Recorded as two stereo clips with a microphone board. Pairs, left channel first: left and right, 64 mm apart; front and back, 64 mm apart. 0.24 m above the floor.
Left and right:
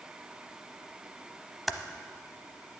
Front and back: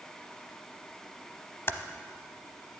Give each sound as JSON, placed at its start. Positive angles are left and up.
{"t": 1.7, "sound": "typing on a keyboard", "azimuth_deg": -5, "distance_m": 0.7}